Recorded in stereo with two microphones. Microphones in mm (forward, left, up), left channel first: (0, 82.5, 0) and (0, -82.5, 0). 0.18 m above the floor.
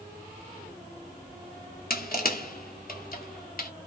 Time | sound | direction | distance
1.9 | crushing | 65° left (ahead or behind) | 0.6 m